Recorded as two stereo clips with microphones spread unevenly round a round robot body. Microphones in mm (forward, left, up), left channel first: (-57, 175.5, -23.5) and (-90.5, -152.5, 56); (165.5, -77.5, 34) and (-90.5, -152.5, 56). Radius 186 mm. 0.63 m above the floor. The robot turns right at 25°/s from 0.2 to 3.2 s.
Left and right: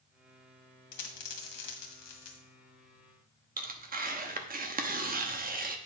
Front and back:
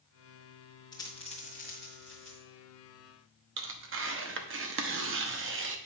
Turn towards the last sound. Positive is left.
turn(degrees=-165)